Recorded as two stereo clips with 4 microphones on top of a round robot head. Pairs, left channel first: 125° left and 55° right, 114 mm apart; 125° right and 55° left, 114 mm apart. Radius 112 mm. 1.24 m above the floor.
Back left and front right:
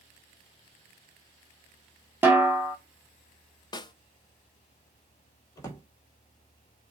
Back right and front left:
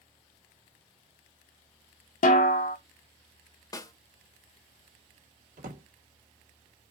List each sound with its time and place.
2.2 s a snare drum: 130° right, 1.0 m
3.7 s a snare drum: 175° left, 0.7 m
5.6 s a drawer: 60° left, 1.7 m